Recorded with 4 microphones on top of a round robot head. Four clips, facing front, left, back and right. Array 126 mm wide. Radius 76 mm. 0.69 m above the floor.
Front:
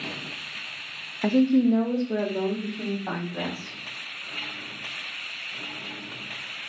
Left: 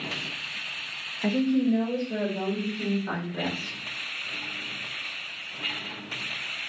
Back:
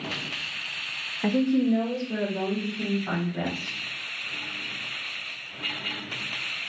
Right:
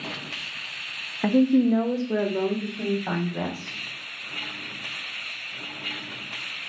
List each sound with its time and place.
1.2 s a woman speaking: 60° right, 0.5 m